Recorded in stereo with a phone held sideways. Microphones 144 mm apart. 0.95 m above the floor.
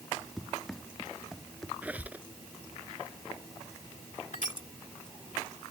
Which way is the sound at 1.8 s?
10° right (ahead or behind).